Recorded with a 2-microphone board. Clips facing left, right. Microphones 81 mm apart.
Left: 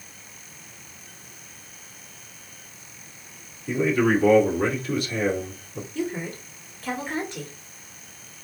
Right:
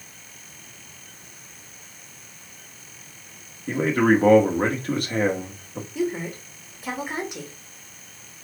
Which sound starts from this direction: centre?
A woman speaking, at 6.0 s.